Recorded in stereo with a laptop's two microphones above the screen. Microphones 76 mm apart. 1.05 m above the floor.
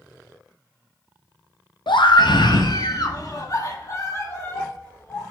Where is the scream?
85° left, 0.8 m; by 5.2 s 30° left (ahead or behind), 2.5 m.